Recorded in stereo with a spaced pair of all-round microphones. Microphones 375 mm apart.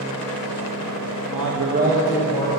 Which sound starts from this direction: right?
A man speaking, at 1.3 s.